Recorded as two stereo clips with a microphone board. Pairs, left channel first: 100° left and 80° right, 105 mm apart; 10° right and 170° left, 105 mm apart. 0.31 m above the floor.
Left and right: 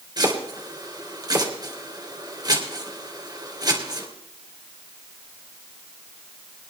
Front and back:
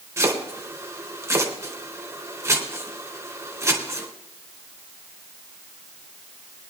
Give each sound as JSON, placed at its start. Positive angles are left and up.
{"t": 0.2, "sound": "chopping", "azimuth_deg": -130, "distance_m": 3.0}